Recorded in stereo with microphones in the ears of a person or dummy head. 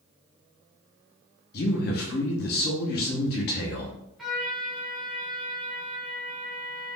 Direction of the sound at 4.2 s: Centre (ahead or behind).